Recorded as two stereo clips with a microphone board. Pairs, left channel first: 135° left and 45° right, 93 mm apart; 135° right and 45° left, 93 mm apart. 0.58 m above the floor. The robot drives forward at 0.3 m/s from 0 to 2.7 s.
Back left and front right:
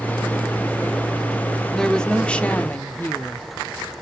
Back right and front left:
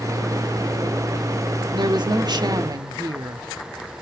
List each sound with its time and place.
1.7 s a woman speaking: 50° left, 1.2 m; by 3.5 s 70° left, 1.1 m